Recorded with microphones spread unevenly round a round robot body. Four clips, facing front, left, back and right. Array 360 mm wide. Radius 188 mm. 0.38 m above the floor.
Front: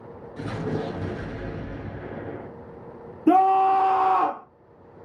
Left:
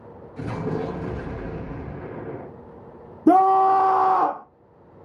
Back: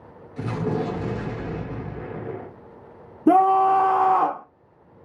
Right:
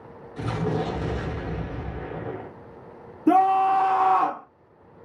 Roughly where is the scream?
Behind left.